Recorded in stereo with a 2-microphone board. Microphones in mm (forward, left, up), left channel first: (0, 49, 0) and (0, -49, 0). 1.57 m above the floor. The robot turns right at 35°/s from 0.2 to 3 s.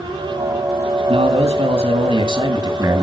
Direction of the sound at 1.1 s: 105° right.